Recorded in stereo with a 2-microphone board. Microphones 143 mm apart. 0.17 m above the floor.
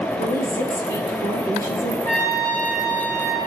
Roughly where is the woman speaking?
Centre.